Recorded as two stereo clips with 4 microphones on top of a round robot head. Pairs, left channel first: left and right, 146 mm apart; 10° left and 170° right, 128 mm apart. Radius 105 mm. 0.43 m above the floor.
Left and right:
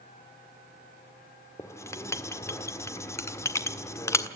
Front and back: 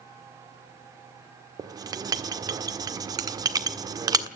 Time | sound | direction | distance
1.6 | writing | 150° left | 1.6 m